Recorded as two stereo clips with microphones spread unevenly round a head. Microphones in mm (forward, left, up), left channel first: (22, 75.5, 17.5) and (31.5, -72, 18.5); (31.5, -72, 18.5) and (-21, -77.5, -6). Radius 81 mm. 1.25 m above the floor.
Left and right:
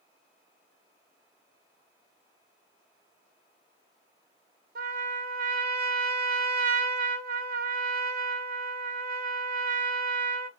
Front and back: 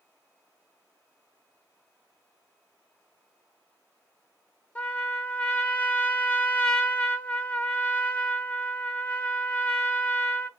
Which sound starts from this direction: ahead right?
A trumpet, at 4.8 s.